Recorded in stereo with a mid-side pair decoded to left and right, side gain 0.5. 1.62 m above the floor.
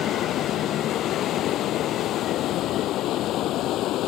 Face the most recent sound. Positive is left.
turn(degrees=70)